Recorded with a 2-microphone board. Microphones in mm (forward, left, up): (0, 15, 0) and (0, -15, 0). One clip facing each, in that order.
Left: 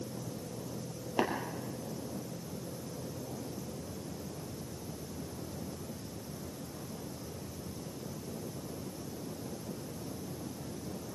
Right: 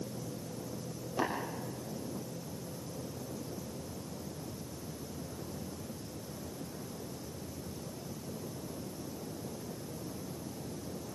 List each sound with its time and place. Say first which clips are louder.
1.2 s tapping: left 2 dB; 45° left (ahead or behind), 4.5 m